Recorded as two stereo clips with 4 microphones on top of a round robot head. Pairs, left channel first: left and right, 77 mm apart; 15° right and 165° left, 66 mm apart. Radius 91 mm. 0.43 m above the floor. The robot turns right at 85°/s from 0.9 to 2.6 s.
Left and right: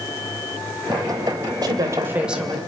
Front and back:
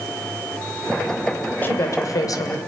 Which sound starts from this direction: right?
A woman speaking, at 1.6 s.